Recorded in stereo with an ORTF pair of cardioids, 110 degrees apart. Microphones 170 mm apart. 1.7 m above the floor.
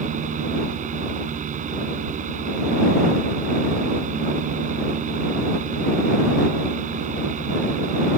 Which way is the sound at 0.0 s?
50° right.